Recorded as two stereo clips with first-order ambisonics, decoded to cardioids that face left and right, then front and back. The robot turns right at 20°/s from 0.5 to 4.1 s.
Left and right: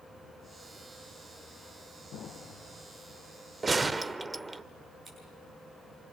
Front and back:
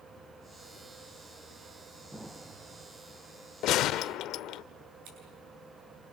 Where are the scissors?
175° right, 9 m.